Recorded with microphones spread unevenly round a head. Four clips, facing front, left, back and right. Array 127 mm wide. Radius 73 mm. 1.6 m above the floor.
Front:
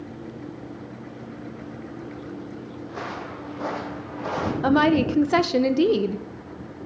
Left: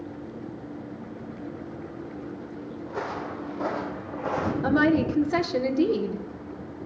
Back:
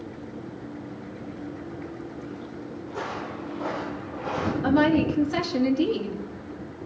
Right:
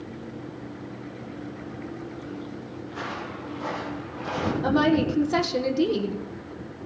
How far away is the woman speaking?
About 1.2 m.